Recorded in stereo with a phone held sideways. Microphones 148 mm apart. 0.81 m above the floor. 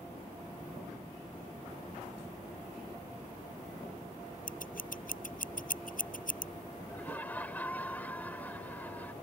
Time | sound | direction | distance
4.5 | scissors | 70° left (ahead or behind) | ?
6.9 | laughter | 10° left (ahead or behind) | ?